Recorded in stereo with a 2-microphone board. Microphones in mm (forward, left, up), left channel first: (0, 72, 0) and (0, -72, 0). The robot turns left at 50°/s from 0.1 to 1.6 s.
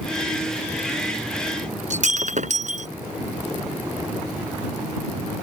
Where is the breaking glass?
65° right (ahead or behind).